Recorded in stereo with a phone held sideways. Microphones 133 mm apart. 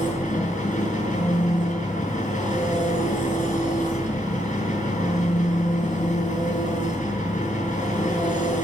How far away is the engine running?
About 7.5 m.